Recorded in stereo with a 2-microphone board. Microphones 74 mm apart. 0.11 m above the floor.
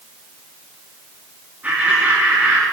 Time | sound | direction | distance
1.6 | laughter | 25° right (ahead or behind) | 4 m